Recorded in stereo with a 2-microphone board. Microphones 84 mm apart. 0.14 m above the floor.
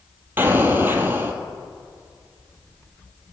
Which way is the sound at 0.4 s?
25° right (ahead or behind).